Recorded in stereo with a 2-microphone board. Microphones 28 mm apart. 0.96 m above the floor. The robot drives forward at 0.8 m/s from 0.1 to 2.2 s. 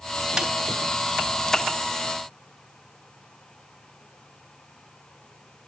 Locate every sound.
0.4 s a snare drum: 15° right (ahead or behind), 3 m; by 0.5 s 20° right (ahead or behind), 2.5 m